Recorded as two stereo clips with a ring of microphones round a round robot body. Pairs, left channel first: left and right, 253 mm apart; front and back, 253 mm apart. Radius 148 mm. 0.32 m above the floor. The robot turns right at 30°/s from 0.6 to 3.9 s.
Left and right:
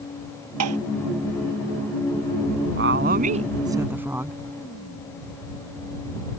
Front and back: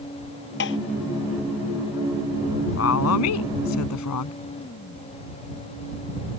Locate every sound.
0.6 s tapping: 55° right; by 0.8 s 50° right
2.8 s a woman speaking: 40° right; by 4.4 s 5° right